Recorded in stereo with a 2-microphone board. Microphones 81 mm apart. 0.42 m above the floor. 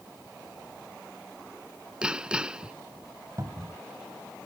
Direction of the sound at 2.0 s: 15° right (ahead or behind).